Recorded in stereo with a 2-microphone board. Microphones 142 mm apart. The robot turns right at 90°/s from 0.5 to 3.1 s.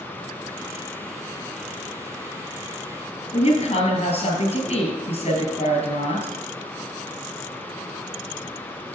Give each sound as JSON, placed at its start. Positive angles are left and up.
{"t": 3.3, "sound": "a woman speaking", "side_deg": 50, "distance_m": 2.0}